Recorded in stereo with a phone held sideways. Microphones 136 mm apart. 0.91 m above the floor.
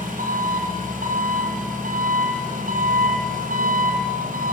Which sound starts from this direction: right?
An engine running, at 0.0 s.